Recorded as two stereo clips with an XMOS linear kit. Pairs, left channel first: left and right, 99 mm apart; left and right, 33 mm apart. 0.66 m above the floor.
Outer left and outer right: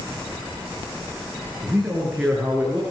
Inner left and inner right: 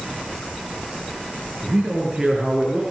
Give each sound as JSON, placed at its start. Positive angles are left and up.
{"t": 1.6, "sound": "a man speaking", "side_deg": -10, "distance_m": 9.5}